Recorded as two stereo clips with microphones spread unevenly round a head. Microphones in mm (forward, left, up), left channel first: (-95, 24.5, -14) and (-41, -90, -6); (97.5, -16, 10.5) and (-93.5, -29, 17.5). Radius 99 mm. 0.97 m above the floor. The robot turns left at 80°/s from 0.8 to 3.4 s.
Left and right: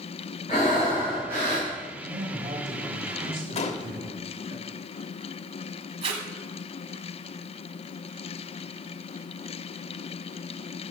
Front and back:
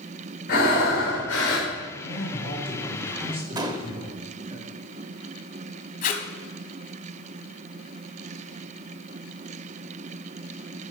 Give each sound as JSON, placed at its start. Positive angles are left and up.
{"t": 0.5, "sound": "breathing", "azimuth_deg": 55, "distance_m": 4.0}
{"t": 2.0, "sound": "a man speaking", "azimuth_deg": 0, "distance_m": 3.5}
{"t": 3.5, "sound": "a gunshot", "azimuth_deg": 120, "distance_m": 0.9}
{"t": 6.0, "sound": "tape being pulled", "azimuth_deg": -35, "distance_m": 1.2}